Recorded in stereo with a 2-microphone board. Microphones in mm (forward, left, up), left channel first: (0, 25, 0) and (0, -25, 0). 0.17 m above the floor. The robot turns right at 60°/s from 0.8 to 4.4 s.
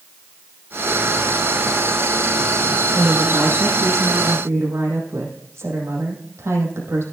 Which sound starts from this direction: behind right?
A woman speaking, at 2.9 s.